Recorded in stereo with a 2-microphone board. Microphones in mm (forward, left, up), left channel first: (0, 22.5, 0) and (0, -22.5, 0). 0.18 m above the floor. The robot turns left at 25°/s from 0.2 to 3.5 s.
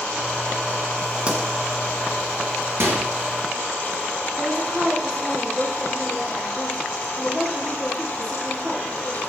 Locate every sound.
1.3 s a pop: 30° right (ahead or behind), 1.6 m; by 1.4 s 25° right (ahead or behind), 1.6 m
2.8 s a microwave: 65° right (ahead or behind), 2.5 m; by 3.0 s 60° right (ahead or behind), 2.5 m
4.4 s a woman speaking: centre (ahead or behind), 5 m